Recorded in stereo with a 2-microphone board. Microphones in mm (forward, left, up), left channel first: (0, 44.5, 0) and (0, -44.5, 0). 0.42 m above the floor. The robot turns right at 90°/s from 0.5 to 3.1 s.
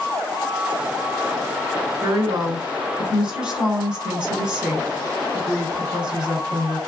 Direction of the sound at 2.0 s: 110° right.